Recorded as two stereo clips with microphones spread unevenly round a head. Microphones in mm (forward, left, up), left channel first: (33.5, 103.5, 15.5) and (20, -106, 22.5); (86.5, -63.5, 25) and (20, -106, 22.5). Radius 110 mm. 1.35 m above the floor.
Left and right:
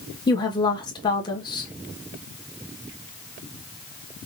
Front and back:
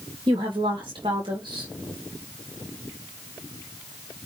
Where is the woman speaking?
160° left, 1.7 m.